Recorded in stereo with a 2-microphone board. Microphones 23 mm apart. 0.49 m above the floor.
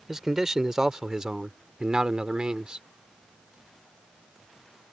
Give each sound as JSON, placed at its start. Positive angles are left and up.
{"t": 0.1, "sound": "a man speaking", "side_deg": -20}